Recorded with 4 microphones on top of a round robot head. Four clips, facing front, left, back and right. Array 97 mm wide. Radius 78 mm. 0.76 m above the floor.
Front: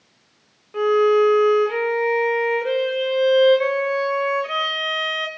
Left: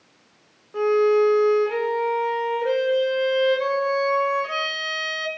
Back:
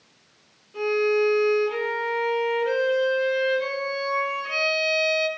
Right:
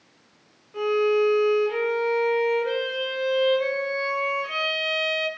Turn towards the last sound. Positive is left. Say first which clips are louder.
# left 3 dB, front 6 dB
turn(degrees=45)